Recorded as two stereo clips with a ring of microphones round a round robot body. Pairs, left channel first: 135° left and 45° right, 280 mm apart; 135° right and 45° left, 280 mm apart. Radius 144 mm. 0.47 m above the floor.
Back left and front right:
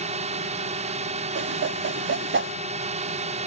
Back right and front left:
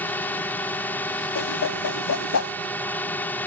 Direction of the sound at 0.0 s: 60° right.